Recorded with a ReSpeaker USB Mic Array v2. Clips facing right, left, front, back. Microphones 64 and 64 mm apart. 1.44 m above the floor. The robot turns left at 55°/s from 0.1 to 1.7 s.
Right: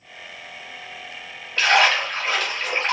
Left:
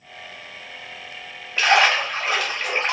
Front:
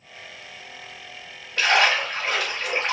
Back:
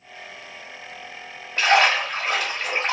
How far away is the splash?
About 1.4 m.